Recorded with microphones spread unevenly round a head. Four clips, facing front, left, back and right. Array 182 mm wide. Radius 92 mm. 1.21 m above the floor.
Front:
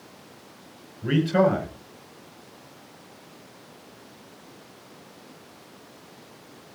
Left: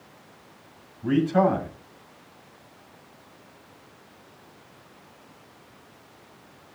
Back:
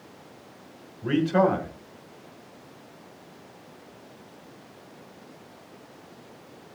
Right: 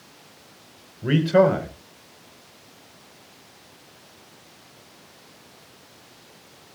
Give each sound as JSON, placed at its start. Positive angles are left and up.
{"t": 1.0, "sound": "a man speaking", "azimuth_deg": -100, "distance_m": 5.5}